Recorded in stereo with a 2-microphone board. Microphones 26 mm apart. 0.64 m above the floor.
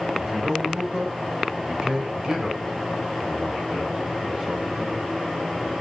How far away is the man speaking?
About 4 m.